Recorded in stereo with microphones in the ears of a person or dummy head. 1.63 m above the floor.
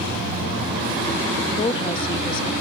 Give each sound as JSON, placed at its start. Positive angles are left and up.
{"t": 1.6, "sound": "a woman speaking", "side_deg": 30, "distance_m": 0.5}